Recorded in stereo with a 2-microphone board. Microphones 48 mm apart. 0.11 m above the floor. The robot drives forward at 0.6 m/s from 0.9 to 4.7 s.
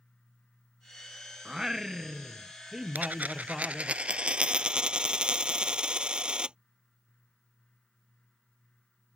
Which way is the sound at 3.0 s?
35° right (ahead or behind).